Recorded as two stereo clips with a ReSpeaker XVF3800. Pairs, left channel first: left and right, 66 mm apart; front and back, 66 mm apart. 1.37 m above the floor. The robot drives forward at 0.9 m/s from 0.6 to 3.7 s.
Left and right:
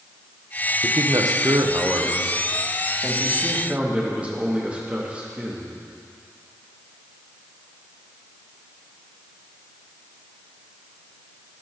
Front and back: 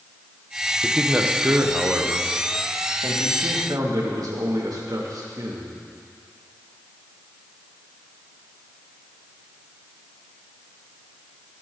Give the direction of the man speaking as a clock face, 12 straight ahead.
3 o'clock.